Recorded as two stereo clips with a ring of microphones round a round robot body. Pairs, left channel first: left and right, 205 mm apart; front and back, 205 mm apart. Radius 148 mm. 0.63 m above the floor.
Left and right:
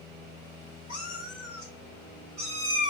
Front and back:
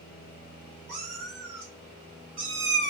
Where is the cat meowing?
150° left, 1.5 m; by 2.9 s 160° right, 0.8 m.